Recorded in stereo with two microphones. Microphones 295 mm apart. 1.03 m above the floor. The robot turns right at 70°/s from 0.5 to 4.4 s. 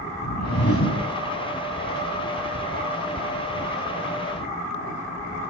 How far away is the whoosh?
About 3 m.